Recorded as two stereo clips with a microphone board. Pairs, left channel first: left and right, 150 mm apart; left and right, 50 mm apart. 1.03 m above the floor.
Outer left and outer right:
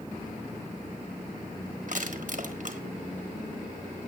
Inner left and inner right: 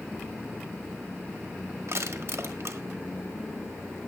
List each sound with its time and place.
1.9 s crushing: 60° right (ahead or behind), 1.4 m